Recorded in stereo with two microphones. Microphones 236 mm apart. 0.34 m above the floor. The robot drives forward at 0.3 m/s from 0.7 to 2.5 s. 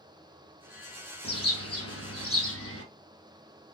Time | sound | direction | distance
1.2 | a bird | 80° left | 1.4 m